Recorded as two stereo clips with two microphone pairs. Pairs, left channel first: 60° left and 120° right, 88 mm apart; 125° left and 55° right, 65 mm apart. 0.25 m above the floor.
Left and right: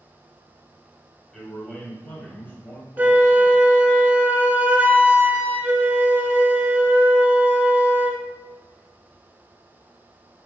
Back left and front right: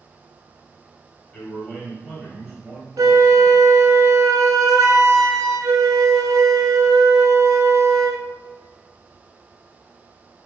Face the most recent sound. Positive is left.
turn(degrees=-50)